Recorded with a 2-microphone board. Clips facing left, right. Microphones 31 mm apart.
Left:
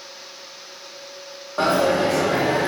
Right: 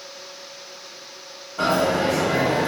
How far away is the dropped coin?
About 1.1 m.